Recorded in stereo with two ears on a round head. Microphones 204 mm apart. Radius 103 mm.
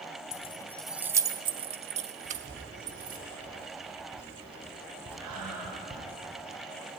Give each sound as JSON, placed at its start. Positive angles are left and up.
{"t": 0.3, "sound": "keys jangling", "side_deg": 35, "distance_m": 0.5}
{"t": 2.2, "sound": "writing", "side_deg": -25, "distance_m": 5.0}
{"t": 5.2, "sound": "breathing", "side_deg": -85, "distance_m": 6.5}